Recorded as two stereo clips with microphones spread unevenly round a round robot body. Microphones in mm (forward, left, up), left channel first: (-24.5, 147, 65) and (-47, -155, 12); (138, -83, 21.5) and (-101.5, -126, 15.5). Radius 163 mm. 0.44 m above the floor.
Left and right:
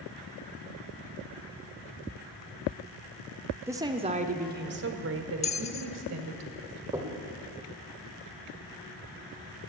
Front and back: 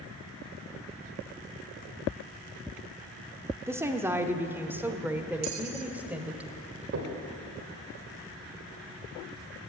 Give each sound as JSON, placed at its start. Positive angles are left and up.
{"t": 3.7, "sound": "a woman speaking", "azimuth_deg": -115, "distance_m": 0.9}
{"t": 5.4, "sound": "a bell", "azimuth_deg": 160, "distance_m": 0.8}
{"t": 6.9, "sound": "knocking", "azimuth_deg": -165, "distance_m": 1.7}